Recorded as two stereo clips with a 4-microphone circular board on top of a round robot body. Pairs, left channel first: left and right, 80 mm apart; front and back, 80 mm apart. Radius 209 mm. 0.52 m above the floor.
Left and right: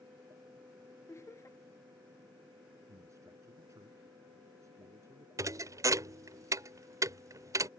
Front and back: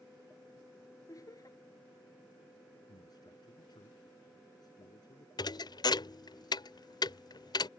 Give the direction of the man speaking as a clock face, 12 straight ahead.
1 o'clock.